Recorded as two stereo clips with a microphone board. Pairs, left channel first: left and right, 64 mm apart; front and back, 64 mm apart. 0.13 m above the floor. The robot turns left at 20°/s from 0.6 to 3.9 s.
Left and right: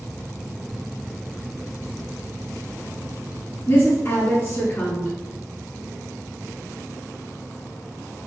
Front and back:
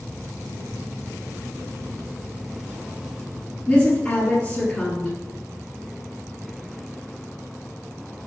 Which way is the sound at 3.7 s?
70° left.